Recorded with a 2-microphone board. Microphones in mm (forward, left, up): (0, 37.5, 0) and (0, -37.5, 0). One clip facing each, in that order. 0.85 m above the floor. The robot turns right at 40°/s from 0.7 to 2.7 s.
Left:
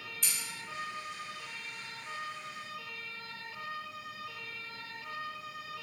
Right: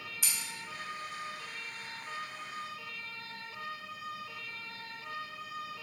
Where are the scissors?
5° right (ahead or behind), 0.9 m.